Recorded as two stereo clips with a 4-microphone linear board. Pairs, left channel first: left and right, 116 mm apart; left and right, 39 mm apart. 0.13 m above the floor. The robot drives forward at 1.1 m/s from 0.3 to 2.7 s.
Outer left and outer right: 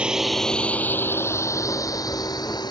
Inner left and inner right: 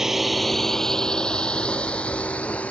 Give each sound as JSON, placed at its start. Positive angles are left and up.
{"t": 0.0, "sound": "a drone", "side_deg": -10}